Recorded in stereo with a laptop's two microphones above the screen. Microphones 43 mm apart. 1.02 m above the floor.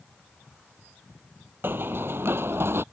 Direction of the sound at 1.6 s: 55° right (ahead or behind).